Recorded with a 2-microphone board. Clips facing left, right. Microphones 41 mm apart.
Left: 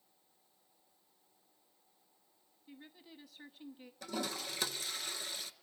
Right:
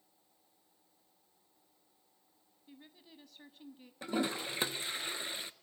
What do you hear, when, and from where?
2.7 s a woman speaking: 5° left (ahead or behind), 1.0 m
4.0 s a toilet flushing: 25° right (ahead or behind), 0.7 m